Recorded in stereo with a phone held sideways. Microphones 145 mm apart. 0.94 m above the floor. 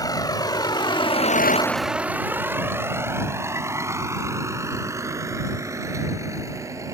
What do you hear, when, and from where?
0.0 s a vehicle: 25° left (ahead or behind); by 7.0 s 20° right (ahead or behind)